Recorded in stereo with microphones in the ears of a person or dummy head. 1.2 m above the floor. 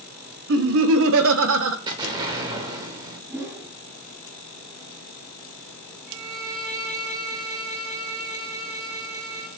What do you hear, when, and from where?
0.5 s laughter: 60° right (ahead or behind), 0.5 m
1.9 s an explosion: 20° right (ahead or behind), 0.8 m
3.3 s a whoosh: 10° right (ahead or behind), 0.6 m
6.1 s a violin: 45° right (ahead or behind), 1.3 m